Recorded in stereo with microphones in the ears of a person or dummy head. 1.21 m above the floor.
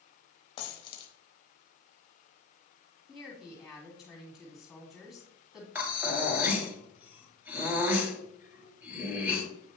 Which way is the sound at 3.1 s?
5° right (ahead or behind).